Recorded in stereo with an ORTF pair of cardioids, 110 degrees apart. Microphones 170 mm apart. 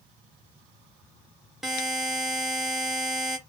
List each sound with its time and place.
1.6 s a buzzer: straight ahead, 0.9 m